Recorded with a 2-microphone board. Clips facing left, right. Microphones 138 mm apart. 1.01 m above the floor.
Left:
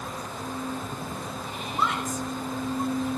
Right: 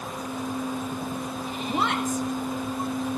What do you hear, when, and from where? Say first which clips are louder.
1.7 s a woman speaking: right 3 dB; 75° right (ahead or behind), 1.3 m